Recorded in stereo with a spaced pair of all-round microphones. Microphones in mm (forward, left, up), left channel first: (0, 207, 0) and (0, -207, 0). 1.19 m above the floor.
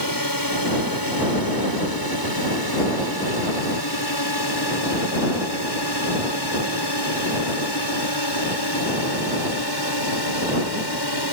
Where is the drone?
55° left (ahead or behind); by 11.3 s 70° left (ahead or behind).